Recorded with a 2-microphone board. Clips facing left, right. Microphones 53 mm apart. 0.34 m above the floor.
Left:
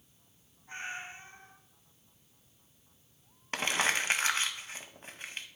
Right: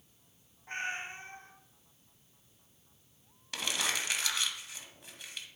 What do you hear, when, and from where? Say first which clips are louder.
0.7 s a cat meowing: right 3 dB; 55° right (ahead or behind), 1.0 m
3.5 s crumpling: left 5 dB; 35° left (ahead or behind), 0.7 m